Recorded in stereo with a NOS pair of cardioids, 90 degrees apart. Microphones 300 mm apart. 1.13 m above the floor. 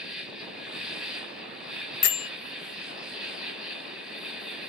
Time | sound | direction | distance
0.0 | an insect | straight ahead | 0.7 m
2.0 | a bell | 65° left | 0.6 m